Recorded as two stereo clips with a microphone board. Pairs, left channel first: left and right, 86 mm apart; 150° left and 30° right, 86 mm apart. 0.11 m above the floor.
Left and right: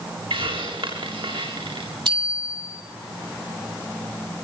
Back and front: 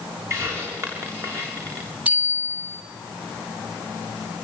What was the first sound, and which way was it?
A hiss, 85° right.